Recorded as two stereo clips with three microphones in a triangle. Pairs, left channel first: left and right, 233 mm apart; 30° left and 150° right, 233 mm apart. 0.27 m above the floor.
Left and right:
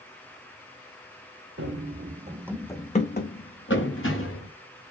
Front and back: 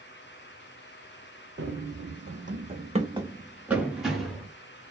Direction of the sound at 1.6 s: 110° right.